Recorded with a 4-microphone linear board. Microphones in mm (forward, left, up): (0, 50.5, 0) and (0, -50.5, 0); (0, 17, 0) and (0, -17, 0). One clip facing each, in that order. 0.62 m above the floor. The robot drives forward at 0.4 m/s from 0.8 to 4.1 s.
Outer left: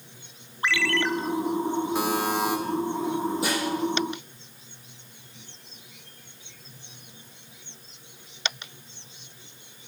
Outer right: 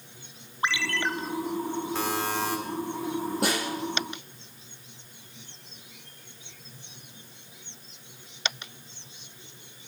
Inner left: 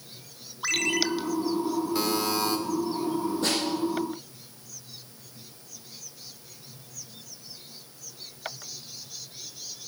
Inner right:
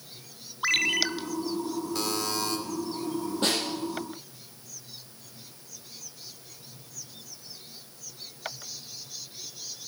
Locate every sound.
0.6 s a ringtone: 20° right (ahead or behind), 0.6 m; by 1.1 s 15° right (ahead or behind), 0.7 m
1.9 s a buzzer: 15° left (ahead or behind), 1.8 m
3.4 s a snare drum: 60° right (ahead or behind), 6.5 m